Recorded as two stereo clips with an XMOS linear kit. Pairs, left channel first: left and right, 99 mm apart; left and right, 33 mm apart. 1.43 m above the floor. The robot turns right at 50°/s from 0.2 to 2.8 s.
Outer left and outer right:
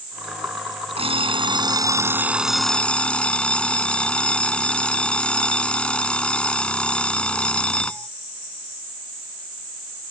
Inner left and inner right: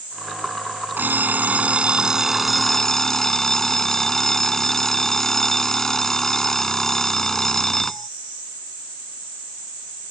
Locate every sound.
1.0 s an alarm clock: 80° right; by 8.1 s 10° left